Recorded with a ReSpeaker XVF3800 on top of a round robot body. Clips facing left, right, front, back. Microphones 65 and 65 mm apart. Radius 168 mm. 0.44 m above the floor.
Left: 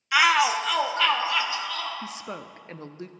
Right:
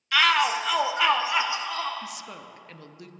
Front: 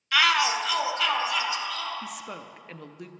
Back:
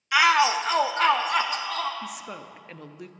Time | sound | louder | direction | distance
0.1 | a shout | left 1 dB, back 3 dB | 135° left | 1.2 m
2.0 | a woman speaking | left 3 dB, back 1 dB | 90° left | 0.8 m